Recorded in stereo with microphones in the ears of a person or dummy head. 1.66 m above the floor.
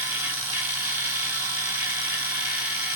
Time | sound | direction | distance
0.0 | a machine running | 10° right (ahead or behind) | 1.4 m